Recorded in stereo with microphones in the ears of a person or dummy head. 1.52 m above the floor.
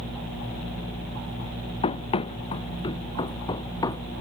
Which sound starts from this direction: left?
Running footsteps, at 1.8 s.